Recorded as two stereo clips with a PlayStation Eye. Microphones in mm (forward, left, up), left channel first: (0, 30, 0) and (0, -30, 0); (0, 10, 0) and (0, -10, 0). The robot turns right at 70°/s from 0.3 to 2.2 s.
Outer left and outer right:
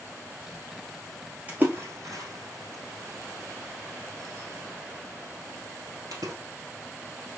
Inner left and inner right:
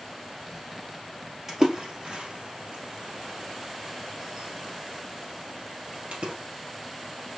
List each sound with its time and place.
1.5 s a splash: 25° right (ahead or behind), 1.6 m; by 6.3 s 70° right (ahead or behind), 1.6 m